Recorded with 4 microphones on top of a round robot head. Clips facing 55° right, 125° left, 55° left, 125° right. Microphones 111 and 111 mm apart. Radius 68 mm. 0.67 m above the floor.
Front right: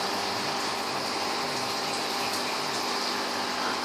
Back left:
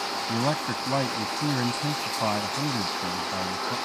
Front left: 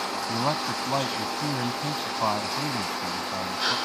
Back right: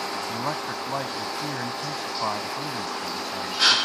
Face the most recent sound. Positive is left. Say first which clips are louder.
# back left 4 dB, front left 5 dB
turn(degrees=125)